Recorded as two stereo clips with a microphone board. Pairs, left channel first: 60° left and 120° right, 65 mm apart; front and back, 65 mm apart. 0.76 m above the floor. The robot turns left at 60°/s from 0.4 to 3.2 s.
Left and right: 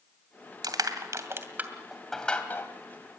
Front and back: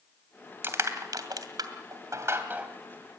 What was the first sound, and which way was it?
Crushing, 125° right.